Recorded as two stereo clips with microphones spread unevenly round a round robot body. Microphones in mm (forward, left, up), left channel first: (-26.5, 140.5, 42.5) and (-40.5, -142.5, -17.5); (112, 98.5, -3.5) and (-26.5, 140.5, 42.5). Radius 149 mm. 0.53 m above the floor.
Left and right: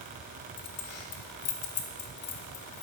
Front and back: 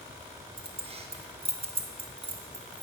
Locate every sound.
0.6 s keys jangling: 105° left, 0.6 m